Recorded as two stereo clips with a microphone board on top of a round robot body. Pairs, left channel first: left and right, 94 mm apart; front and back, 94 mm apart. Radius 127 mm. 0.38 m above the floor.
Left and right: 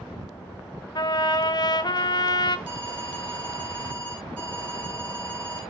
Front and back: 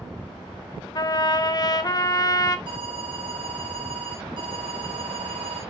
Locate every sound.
0.9 s a trumpet: 45° left, 1.3 m
2.7 s an alarm: 165° left, 6 m